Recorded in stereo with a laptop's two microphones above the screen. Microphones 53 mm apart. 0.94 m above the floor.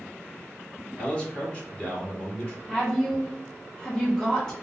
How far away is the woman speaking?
About 0.7 m.